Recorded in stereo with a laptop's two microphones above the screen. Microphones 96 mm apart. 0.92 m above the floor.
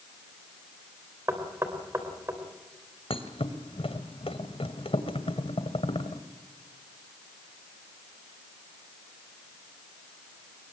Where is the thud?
75° left (ahead or behind), 1.8 m.